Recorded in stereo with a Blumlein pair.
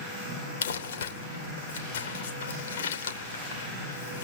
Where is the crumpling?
60° left, 3 m.